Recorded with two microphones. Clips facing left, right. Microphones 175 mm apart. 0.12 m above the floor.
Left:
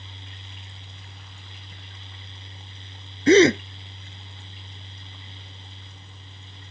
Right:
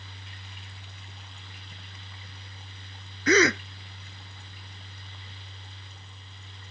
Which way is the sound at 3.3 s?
30° left (ahead or behind).